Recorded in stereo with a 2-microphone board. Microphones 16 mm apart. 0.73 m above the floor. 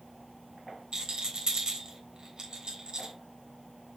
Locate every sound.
0.9 s a rattle: 65° right (ahead or behind), 1.4 m